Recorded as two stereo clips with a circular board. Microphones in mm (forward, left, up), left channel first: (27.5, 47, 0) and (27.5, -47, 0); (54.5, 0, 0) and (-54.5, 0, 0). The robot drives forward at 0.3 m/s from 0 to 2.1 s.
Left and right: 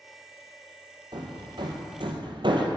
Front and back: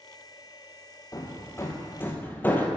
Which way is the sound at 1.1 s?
55° right.